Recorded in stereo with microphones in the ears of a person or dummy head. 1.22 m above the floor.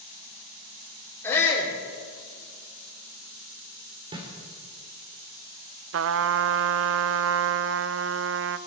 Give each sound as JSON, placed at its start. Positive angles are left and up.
{"t": 1.2, "sound": "a shout", "side_deg": 10, "distance_m": 3.0}
{"t": 4.1, "sound": "a snare drum", "side_deg": -25, "distance_m": 2.5}
{"t": 5.9, "sound": "a trumpet", "side_deg": -60, "distance_m": 0.5}